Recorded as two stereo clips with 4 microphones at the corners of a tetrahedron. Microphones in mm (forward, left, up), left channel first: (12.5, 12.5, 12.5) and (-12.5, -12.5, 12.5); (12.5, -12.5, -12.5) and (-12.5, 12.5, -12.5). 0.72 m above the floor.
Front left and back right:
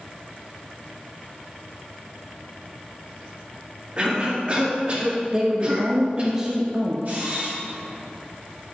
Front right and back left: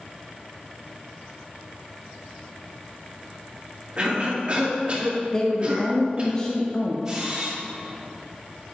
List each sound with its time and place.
4.0 s a cough: straight behind, 1.7 m
5.3 s a woman speaking: 85° right, 0.7 m
7.0 s a camera shutter: 155° right, 1.5 m